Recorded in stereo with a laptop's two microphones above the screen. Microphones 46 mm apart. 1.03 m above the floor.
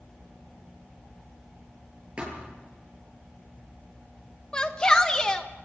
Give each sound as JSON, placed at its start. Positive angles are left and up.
{"t": 2.2, "sound": "a thud", "side_deg": -25, "distance_m": 9.0}
{"t": 4.5, "sound": "a shout", "side_deg": 15, "distance_m": 1.1}